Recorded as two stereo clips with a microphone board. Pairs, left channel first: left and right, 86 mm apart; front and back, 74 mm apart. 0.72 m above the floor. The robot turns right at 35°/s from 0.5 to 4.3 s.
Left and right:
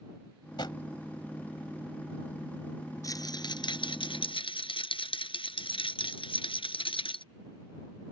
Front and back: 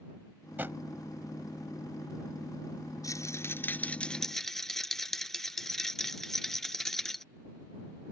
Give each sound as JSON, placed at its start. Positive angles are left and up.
{"t": 0.6, "sound": "a drawer", "azimuth_deg": 115}
{"t": 3.0, "sound": "a rattle", "azimuth_deg": 40}